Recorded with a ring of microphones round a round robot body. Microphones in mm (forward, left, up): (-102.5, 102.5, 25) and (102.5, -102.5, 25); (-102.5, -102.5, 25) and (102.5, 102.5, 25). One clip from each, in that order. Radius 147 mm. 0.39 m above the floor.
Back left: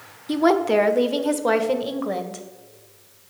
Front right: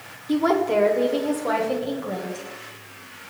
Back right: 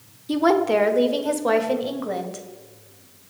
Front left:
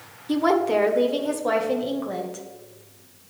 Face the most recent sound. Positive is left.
turn(degrees=150)